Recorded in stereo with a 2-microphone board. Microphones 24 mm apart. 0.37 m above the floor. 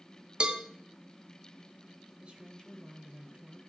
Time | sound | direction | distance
0.4 | a cowbell | 40° right (ahead or behind) | 0.7 m
2.2 | a woman speaking | 45° right (ahead or behind) | 1.4 m